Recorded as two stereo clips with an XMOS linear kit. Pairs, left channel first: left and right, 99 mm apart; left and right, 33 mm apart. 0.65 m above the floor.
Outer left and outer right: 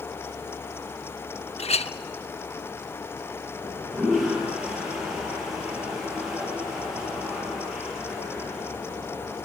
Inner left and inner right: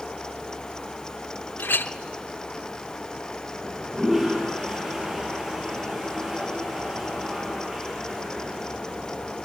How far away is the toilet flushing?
About 7.5 m.